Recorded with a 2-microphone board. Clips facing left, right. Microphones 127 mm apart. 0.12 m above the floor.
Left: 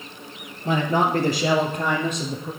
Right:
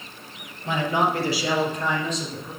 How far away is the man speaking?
About 2.5 m.